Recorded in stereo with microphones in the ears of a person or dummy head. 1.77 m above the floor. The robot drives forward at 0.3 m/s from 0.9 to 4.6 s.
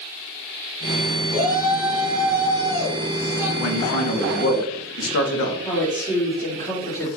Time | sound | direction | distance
1.3 | a shout | 25° right (ahead or behind) | 2.5 m
3.6 | a man speaking | 85° left | 2 m
5.6 | a woman speaking | 15° left (ahead or behind) | 4 m